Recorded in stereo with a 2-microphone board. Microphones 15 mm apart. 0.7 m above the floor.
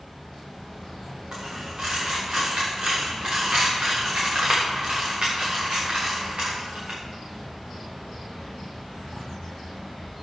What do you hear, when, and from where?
1.3 s a dropped coin: 65° right (ahead or behind), 6.5 m